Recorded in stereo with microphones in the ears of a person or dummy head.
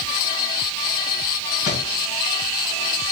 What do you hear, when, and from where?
1.6 s a thud: 60° left (ahead or behind), 3.5 m